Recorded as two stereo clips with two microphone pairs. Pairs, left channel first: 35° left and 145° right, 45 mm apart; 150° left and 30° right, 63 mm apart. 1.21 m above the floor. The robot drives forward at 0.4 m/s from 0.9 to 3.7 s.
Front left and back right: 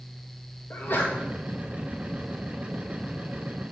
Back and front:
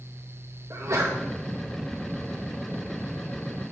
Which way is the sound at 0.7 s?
5° left.